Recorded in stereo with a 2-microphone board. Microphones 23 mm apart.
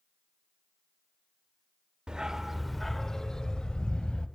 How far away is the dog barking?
About 0.6 m.